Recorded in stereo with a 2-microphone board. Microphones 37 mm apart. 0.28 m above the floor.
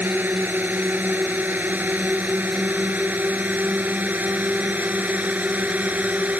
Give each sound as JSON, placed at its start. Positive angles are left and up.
{"t": 0.0, "sound": "a drone", "side_deg": -55}